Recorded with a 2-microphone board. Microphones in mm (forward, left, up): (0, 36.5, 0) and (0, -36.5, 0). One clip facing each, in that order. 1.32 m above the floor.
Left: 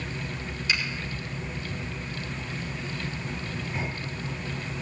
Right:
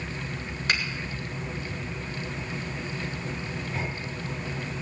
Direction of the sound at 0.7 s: 55° right (ahead or behind).